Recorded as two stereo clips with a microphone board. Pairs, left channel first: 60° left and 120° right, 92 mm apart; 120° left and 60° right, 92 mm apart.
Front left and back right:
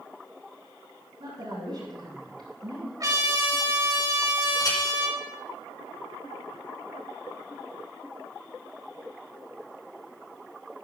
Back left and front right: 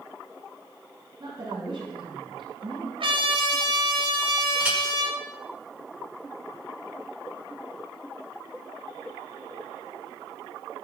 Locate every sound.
1.2 s a woman speaking: 100° right, 8 m; by 2.9 s 90° right, 8.5 m
3.0 s a trumpet: 70° right, 4.5 m
4.6 s a clink: 15° left, 6 m